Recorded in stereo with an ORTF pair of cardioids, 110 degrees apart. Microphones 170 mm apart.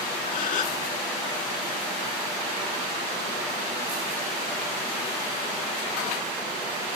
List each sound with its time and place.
0.3 s a gasp: 55° left